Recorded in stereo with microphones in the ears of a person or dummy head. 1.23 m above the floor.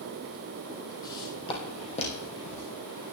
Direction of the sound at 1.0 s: 25° left (ahead or behind).